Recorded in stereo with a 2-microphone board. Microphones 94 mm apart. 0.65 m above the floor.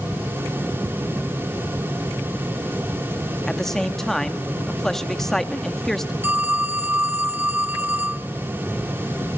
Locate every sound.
3.5 s a man speaking: 5° left (ahead or behind), 1.1 m
6.2 s a phone ringing: 20° right (ahead or behind), 0.9 m